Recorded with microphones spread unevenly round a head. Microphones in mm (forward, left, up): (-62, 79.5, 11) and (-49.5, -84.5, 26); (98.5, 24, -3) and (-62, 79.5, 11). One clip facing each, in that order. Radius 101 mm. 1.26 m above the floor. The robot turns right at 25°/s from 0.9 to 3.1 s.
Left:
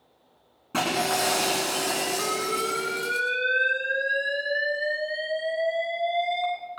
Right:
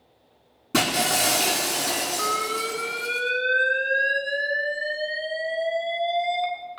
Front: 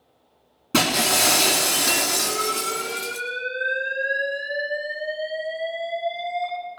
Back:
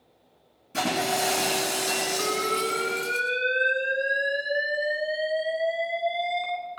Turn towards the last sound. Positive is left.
turn(degrees=-155)